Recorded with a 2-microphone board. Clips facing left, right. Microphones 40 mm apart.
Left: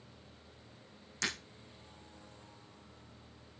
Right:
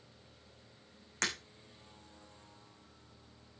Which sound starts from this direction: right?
Breaking glass, at 1.2 s.